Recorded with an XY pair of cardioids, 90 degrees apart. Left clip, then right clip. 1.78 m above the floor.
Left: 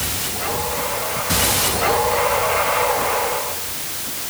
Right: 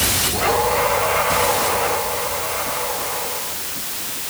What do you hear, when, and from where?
Only background noise.